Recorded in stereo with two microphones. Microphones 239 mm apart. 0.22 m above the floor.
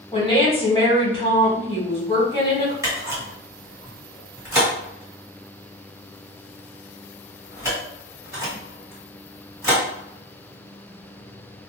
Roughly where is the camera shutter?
Centre.